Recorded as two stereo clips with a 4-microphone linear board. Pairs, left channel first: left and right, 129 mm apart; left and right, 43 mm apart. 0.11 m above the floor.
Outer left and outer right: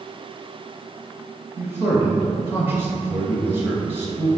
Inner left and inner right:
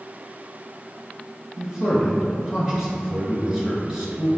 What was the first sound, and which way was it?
A man speaking, 15° right (ahead or behind).